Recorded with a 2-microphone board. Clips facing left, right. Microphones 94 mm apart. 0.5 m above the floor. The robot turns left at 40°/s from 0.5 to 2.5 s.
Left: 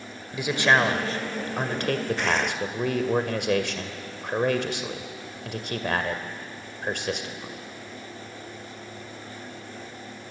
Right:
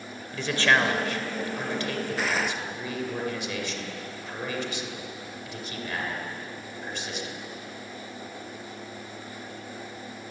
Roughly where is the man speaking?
Behind.